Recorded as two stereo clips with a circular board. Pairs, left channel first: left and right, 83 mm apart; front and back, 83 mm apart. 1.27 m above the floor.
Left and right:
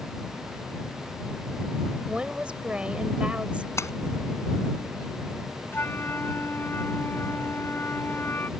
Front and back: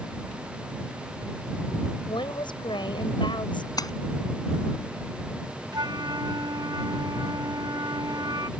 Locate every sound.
2.1 s a woman speaking: 15° right
3.8 s a splash: 35° left
5.7 s a flute: 150° left